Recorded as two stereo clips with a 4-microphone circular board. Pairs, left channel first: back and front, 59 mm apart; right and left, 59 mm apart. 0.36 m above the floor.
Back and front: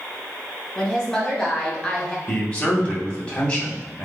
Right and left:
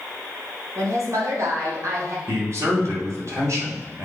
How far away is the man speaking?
About 2.5 m.